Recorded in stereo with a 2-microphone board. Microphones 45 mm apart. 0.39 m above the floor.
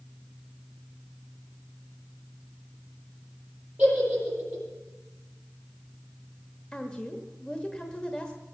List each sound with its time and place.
3.8 s a giggle: 20° right (ahead or behind), 8.5 m
6.7 s a woman speaking: 20° left (ahead or behind), 1.4 m